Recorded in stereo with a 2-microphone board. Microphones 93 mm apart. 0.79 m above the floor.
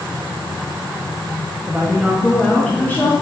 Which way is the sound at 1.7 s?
25° right (ahead or behind).